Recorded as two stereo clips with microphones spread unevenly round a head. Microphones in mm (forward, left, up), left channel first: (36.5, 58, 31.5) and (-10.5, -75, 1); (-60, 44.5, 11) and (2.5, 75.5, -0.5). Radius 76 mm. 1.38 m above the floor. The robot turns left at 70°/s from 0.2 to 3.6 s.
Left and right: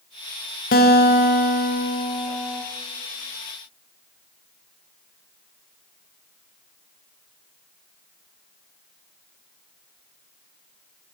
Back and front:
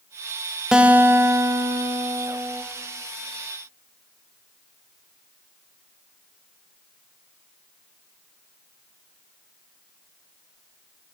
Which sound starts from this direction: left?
A guitar, at 0.7 s.